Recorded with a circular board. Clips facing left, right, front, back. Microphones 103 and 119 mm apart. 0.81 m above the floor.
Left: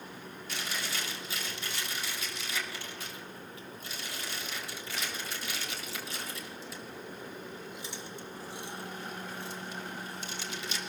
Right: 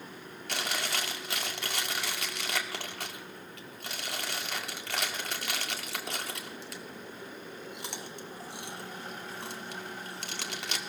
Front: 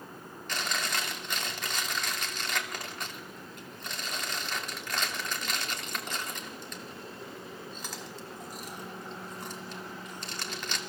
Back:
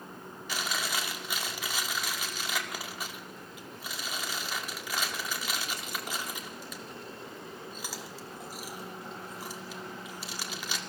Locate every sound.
0.5 s chewing: 95° right, 2.5 m